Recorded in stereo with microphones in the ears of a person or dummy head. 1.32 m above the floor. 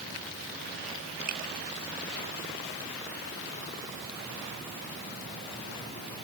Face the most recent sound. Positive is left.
turn(degrees=-50)  # may be behind; listen again after turning